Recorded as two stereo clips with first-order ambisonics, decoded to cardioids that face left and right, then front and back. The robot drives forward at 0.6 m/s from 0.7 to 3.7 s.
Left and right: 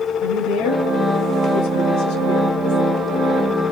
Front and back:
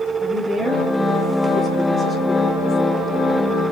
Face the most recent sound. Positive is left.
turn(degrees=115)